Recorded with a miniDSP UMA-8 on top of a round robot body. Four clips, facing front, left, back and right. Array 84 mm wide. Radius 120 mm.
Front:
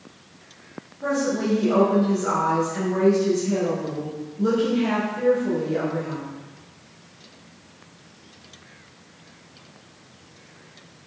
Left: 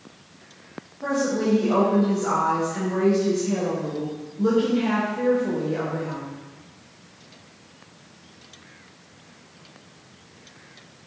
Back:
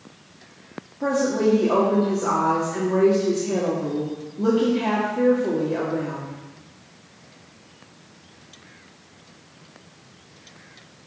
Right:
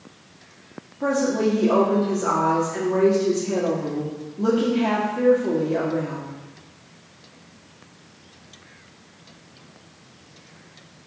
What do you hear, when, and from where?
1.0 s a woman speaking: 135° right, 2 m